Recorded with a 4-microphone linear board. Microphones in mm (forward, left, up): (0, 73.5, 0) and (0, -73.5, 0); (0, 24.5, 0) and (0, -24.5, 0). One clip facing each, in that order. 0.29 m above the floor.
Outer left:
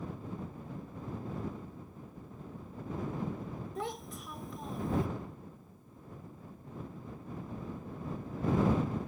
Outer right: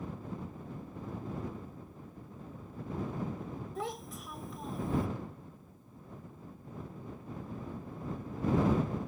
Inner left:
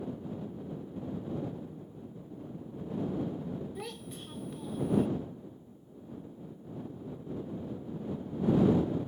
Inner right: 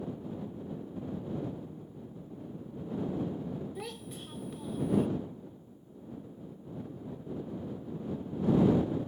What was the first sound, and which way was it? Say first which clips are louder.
A child speaking: even, even; centre (ahead or behind).